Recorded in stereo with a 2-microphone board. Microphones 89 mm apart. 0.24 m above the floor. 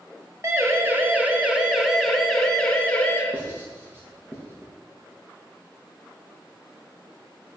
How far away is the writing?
About 7 m.